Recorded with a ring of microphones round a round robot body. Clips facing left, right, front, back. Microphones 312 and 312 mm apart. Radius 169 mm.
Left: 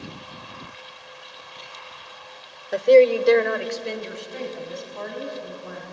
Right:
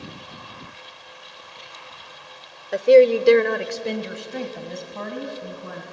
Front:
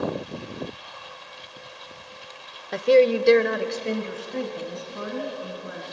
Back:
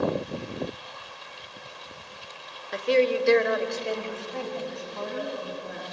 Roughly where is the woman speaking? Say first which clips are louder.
Right 1 dB, front 5 dB; ahead.